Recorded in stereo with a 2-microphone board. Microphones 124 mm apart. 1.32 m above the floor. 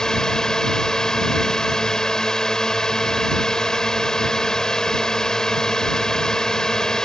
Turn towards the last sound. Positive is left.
turn(degrees=5)  # may be behind; listen again after turning